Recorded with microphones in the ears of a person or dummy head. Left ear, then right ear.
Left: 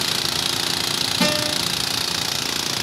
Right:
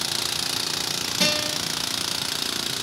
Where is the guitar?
10° right (ahead or behind), 6.5 m.